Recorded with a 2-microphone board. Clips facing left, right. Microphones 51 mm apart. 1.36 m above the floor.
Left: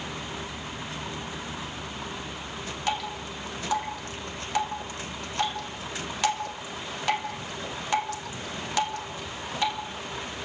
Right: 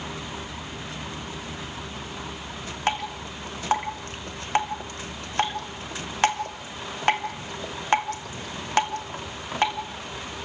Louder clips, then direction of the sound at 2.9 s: Right 3 dB; 45° right (ahead or behind).